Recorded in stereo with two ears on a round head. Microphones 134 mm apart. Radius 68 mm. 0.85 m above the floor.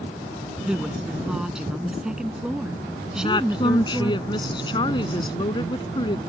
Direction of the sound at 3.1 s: 30° left (ahead or behind).